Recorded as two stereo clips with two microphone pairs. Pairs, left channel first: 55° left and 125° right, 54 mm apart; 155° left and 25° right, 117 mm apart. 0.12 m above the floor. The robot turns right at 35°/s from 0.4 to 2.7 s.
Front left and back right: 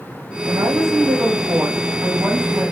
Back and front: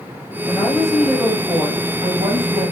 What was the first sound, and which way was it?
A woman speaking, 135° right.